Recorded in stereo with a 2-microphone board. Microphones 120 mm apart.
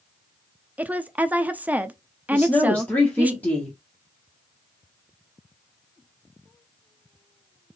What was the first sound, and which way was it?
A woman speaking, 15° right (ahead or behind).